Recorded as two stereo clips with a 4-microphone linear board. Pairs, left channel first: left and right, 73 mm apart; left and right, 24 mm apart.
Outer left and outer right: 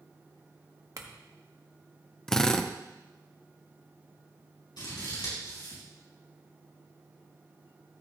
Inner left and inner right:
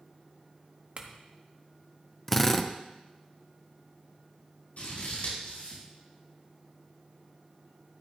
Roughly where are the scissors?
Left.